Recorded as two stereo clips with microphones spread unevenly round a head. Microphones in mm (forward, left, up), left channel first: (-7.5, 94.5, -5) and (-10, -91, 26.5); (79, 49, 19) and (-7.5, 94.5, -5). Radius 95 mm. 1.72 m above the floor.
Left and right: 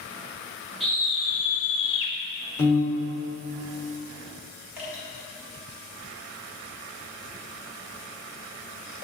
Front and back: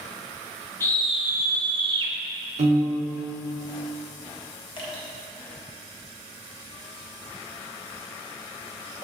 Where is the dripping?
15° right, 1.6 m.